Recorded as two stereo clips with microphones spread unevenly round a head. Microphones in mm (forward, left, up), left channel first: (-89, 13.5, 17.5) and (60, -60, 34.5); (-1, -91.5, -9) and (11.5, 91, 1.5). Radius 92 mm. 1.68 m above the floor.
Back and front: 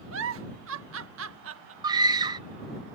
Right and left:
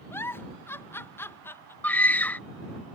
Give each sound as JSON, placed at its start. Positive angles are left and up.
{"t": 0.1, "sound": "a giggle", "azimuth_deg": -15}
{"t": 1.8, "sound": "a scream", "azimuth_deg": -15}